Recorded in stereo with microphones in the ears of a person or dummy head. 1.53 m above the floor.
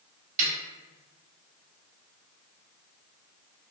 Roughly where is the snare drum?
Right.